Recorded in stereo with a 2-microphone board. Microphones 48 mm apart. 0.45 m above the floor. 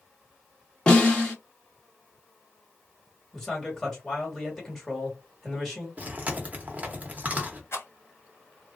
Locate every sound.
0.9 s a snare drum: 15° left (ahead or behind), 1.3 m
3.3 s a man speaking: 10° left (ahead or behind), 1.6 m
6.0 s chewing: 35° right (ahead or behind), 0.9 m
7.7 s a rattle: 60° left (ahead or behind), 1.0 m